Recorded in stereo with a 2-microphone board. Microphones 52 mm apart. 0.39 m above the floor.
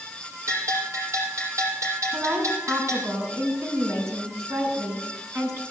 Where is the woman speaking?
65° right (ahead or behind), 4.5 m.